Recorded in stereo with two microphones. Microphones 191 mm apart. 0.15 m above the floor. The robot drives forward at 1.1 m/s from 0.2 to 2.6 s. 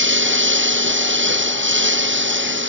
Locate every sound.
0.0 s a lawn mower: 80° right